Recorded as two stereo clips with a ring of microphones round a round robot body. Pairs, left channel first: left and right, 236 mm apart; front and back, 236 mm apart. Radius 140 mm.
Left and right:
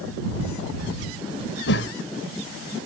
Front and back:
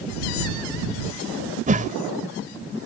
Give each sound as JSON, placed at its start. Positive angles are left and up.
{"t": 1.7, "sound": "a whoosh", "azimuth_deg": 125}